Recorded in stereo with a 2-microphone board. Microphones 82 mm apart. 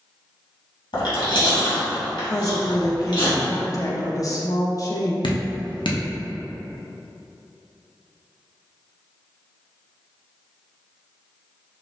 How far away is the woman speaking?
About 0.7 m.